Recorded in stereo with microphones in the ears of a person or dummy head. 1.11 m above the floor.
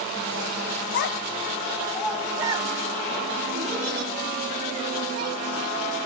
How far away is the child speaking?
About 0.7 m.